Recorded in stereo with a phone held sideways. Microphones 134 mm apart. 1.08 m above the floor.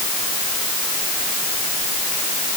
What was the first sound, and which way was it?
Only background noise.